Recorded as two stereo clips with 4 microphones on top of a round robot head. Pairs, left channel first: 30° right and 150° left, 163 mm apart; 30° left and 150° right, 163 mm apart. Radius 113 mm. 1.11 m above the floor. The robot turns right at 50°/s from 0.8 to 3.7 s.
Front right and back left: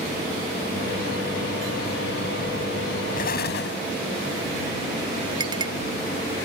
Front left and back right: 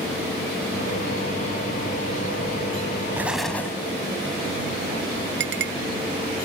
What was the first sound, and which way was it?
An explosion, 70° right.